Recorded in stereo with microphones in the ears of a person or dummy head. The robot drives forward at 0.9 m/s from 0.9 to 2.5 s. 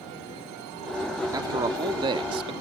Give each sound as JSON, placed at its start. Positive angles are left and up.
{"t": 1.3, "sound": "a man speaking", "side_deg": -20}